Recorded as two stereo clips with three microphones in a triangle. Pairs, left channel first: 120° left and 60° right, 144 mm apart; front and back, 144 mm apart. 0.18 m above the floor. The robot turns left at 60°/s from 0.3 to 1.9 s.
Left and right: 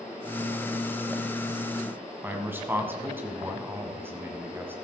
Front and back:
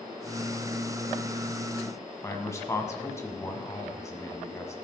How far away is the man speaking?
About 1.5 m.